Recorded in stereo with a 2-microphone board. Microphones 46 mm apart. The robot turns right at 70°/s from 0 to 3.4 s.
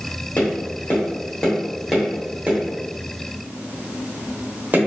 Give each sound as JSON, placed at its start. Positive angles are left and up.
{"t": 0.4, "sound": "tapping", "side_deg": 40, "distance_m": 1.2}